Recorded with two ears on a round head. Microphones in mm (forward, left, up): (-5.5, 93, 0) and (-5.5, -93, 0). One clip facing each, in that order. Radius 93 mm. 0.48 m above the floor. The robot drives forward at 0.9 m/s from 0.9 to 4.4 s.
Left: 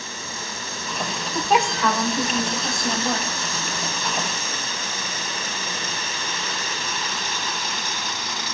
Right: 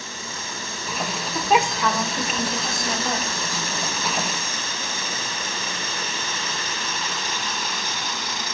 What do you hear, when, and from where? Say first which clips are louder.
1.4 s a woman speaking: even; centre (ahead or behind), 1.3 m